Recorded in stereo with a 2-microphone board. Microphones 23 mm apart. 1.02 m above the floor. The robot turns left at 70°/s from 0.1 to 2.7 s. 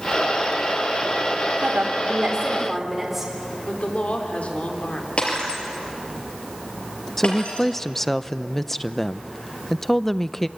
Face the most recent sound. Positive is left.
turn(degrees=10)  # may be behind; listen again after turning